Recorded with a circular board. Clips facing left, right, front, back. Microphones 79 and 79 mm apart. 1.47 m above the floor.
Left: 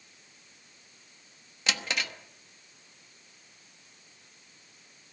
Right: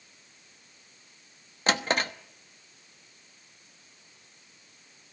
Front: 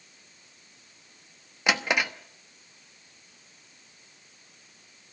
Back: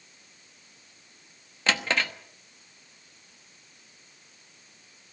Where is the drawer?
70° right, 1.0 m.